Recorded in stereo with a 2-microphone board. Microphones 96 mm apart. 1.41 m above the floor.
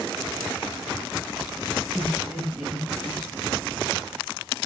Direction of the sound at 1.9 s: 5° right (ahead or behind).